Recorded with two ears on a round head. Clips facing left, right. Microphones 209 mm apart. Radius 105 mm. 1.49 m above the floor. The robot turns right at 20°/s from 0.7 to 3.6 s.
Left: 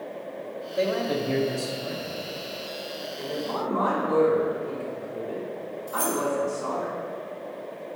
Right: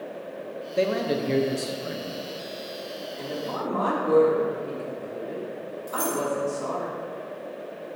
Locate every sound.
0.8 s a man speaking: 40° right (ahead or behind), 0.8 m; by 2.2 s 10° right (ahead or behind), 0.8 m
3.2 s a woman speaking: 65° right (ahead or behind), 2.5 m; by 6.9 s 55° right (ahead or behind), 2.5 m
5.9 s keys jangling: 20° right (ahead or behind), 3 m